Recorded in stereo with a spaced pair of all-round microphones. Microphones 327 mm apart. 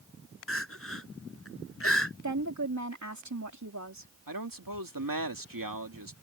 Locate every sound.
0.5 s crying: 40° left (ahead or behind)
2.2 s a woman speaking: 55° right (ahead or behind)
4.3 s a man speaking: 80° right